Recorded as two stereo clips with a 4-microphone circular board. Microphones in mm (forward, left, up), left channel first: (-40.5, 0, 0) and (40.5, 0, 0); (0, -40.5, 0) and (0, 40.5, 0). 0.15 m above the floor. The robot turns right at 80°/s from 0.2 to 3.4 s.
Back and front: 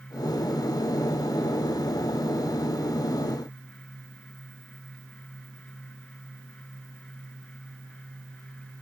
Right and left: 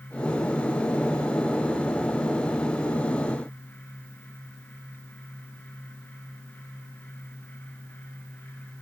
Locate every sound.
Only background noise.